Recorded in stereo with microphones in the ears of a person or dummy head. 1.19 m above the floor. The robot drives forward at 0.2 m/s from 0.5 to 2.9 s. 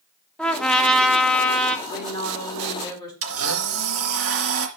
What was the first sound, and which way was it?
A trumpet, 5° left (ahead or behind).